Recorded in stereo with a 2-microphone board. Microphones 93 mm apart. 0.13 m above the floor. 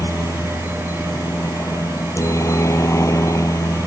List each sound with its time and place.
0.0 s a helicopter: 35° left (ahead or behind)